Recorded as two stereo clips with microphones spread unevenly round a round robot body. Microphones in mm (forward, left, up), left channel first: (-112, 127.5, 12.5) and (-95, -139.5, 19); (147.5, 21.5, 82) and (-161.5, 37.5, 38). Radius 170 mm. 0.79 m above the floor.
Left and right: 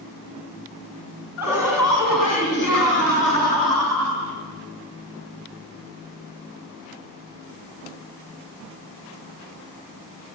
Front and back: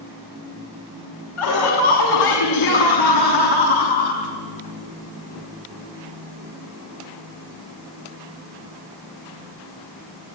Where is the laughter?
Straight ahead, 6 m; by 4.2 s 30° right, 7.5 m.